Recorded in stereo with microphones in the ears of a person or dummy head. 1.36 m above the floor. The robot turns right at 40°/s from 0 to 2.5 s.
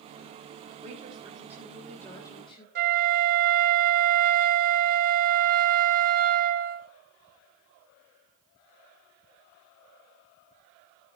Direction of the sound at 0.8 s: 40° right.